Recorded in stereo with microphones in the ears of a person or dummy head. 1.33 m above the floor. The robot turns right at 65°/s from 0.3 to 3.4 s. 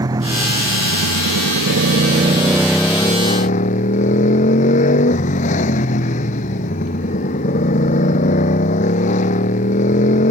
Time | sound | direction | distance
0.0 | a motorcycle | 160° right | ?